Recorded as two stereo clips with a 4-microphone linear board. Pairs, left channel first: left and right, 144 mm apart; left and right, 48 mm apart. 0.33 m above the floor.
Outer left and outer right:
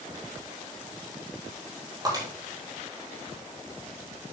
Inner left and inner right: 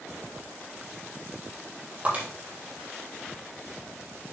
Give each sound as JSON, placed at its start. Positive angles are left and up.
{"t": 2.0, "sound": "breaking glass", "side_deg": -30, "distance_m": 4.0}